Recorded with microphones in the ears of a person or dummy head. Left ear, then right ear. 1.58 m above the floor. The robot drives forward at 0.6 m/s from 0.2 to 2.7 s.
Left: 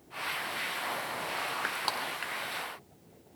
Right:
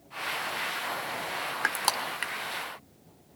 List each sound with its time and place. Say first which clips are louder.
1.6 s crushing: right 4 dB; 35° right (ahead or behind), 1.0 m; by 2.3 s 25° right (ahead or behind), 1.4 m